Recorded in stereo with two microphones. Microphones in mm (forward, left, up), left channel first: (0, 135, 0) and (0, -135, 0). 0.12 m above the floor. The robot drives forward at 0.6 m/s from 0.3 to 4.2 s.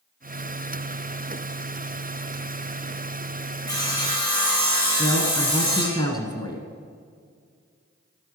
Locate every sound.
3.7 s sawing: 15° left (ahead or behind), 2.5 m; by 6.0 s 10° left (ahead or behind), 3 m
5.0 s a woman speaking: 15° left (ahead or behind), 1.1 m